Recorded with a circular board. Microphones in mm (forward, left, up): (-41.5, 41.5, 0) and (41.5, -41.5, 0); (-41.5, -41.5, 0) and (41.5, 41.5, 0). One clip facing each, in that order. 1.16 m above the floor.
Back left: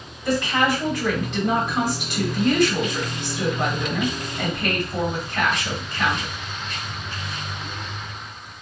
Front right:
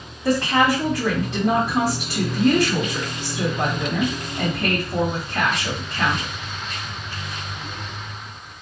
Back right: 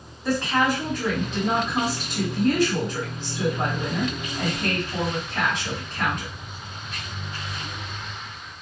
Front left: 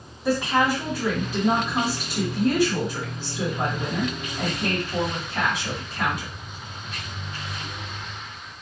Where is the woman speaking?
35° right, 1.4 m.